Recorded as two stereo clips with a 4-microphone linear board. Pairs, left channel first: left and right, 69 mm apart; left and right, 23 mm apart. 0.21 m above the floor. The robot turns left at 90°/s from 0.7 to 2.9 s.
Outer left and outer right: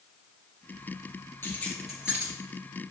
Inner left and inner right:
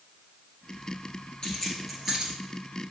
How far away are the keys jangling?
About 3 m.